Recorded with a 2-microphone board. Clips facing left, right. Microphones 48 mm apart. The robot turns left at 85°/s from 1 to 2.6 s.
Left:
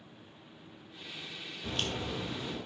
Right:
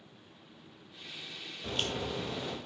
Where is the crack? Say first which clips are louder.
Right 1 dB; 5° left, 1.7 m; by 2.6 s 75° right, 1.7 m.